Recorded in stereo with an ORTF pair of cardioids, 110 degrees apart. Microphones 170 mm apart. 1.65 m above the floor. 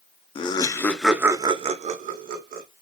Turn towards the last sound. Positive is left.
turn(degrees=-70)